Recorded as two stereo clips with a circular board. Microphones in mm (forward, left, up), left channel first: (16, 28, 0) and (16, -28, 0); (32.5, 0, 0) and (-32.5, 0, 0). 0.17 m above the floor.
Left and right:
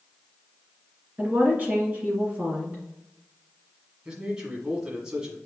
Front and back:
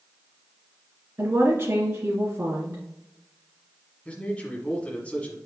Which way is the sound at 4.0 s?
35° right.